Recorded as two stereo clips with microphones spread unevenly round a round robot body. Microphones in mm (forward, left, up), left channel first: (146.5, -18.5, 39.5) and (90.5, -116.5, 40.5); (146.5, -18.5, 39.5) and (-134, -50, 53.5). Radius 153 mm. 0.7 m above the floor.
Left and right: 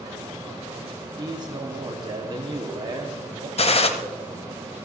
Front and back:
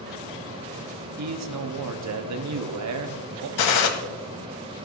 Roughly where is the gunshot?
Ahead left.